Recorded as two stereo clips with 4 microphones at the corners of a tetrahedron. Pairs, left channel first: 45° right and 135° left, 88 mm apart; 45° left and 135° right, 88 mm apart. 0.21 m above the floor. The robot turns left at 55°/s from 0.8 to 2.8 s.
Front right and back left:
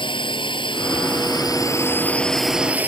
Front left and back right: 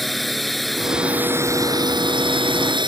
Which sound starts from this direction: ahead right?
A drone, at 0.0 s.